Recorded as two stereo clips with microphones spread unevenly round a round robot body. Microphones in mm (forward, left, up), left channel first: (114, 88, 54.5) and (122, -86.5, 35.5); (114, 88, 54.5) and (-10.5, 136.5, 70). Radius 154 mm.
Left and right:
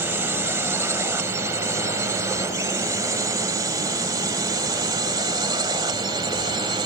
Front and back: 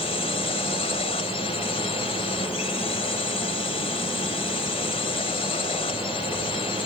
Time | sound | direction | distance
0.0 | a drone | 15° right | ?